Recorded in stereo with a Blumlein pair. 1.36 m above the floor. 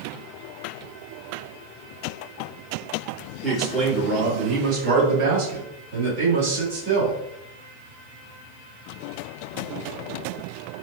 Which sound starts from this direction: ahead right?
A man speaking, at 3.4 s.